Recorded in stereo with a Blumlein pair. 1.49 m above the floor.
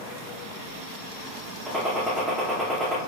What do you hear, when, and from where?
1.7 s a gunshot: 5° right, 0.8 m